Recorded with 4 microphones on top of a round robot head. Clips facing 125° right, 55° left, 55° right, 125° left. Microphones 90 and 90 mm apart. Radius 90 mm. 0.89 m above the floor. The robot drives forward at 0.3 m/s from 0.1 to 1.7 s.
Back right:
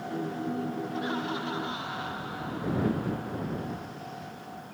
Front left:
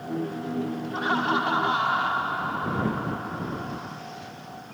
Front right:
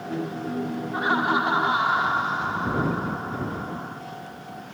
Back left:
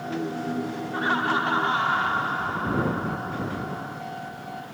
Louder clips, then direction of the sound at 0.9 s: Front left 11 dB, front right 2 dB; 20° left.